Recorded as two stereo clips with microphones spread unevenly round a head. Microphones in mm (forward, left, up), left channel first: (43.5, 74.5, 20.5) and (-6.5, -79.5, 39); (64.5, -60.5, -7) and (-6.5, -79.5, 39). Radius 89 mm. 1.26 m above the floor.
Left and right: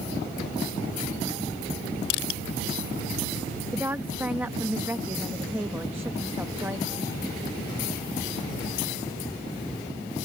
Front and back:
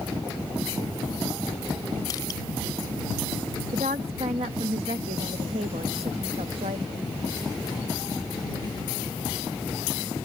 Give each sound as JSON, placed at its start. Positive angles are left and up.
{"t": 2.1, "sound": "crushing", "azimuth_deg": 100}
{"t": 3.7, "sound": "a woman speaking", "azimuth_deg": 170}